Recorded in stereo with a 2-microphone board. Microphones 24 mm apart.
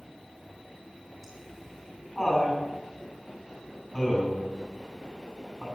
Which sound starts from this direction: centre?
Laughter, at 1.2 s.